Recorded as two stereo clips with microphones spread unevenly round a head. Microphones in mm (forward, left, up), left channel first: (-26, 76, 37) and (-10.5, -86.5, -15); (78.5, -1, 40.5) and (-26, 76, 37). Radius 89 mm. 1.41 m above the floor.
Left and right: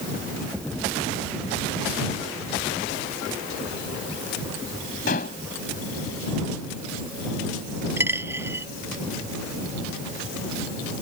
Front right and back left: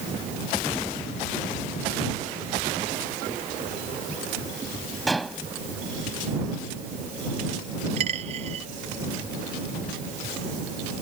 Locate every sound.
5.1 s dishes clattering: 55° left
8.0 s a dropped coin: 165° right